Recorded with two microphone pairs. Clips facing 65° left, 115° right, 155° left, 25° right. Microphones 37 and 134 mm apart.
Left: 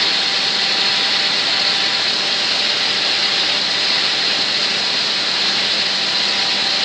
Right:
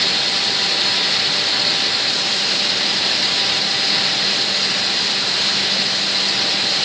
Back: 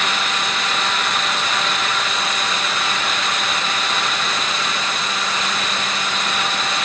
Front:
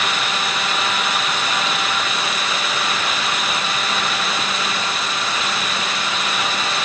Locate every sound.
Only background noise.